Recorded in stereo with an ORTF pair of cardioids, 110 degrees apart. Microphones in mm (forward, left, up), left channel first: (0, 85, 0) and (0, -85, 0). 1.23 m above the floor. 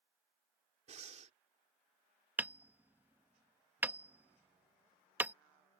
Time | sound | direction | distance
0.9 | breathing | 40° right | ?
2.4 | hammering | 10° right | ?